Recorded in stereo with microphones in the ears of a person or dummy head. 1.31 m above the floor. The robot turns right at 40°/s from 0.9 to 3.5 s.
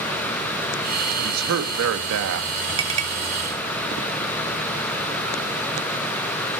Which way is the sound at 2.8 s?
25° right (ahead or behind).